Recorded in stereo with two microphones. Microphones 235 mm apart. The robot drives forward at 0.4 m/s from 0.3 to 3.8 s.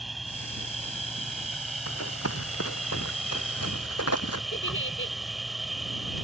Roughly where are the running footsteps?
Left.